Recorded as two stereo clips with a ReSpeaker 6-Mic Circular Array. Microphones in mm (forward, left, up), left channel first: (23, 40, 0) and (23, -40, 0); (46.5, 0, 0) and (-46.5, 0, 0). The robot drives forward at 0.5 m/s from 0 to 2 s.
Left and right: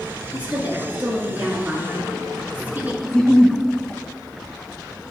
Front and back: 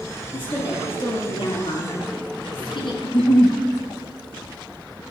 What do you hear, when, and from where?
0.3 s a woman speaking: 20° right, 5 m; by 2.9 s 25° right, 4.5 m
3.0 s a giggle: 5° left, 1.3 m